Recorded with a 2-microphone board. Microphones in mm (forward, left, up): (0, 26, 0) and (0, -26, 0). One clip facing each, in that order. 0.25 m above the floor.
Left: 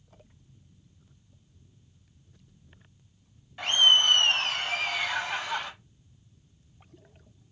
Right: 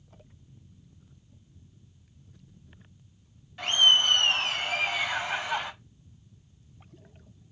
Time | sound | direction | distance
3.6 | laughter | 5° left (ahead or behind) | 1.7 m